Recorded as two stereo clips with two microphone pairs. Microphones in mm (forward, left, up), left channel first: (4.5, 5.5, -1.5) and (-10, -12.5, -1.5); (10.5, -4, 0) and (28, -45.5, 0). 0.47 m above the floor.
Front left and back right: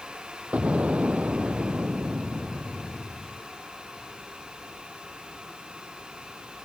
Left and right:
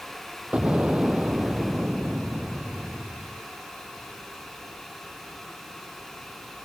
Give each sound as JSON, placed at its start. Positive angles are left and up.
{"t": 0.5, "sound": "an explosion", "azimuth_deg": -135}